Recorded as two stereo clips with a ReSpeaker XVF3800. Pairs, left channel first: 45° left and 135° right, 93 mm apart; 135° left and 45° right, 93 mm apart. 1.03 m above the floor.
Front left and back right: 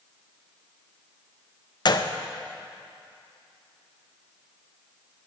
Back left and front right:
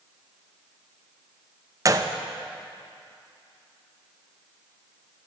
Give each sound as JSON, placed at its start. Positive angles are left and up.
{"t": 1.9, "sound": "a gunshot", "azimuth_deg": 10, "distance_m": 0.5}